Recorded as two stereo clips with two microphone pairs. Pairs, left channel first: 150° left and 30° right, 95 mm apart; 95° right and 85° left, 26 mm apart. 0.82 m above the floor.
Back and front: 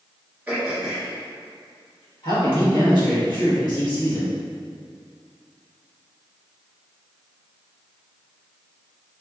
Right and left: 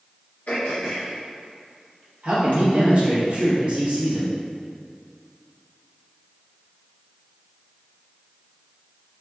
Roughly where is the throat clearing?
Right.